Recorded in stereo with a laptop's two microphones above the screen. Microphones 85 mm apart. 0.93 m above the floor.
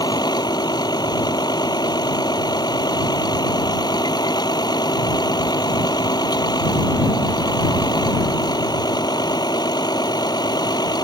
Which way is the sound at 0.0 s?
55° left (ahead or behind).